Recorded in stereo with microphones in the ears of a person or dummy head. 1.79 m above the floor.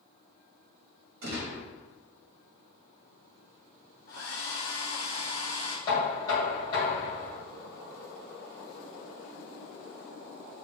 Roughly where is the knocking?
Left.